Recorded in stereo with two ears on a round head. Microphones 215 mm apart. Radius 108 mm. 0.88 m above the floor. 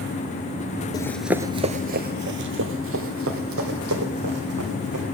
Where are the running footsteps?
15° left (ahead or behind), 0.8 m; by 5.0 s 65° right (ahead or behind), 4 m.